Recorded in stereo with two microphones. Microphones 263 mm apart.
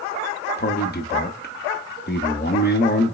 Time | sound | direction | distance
0.6 | a man speaking | 40° left (ahead or behind) | 0.6 m